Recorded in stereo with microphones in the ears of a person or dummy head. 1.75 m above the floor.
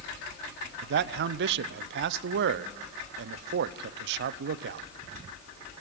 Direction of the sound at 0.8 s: 65° right (ahead or behind).